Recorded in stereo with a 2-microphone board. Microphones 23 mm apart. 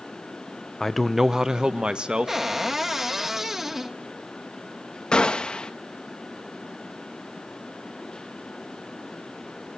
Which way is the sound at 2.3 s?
15° right (ahead or behind).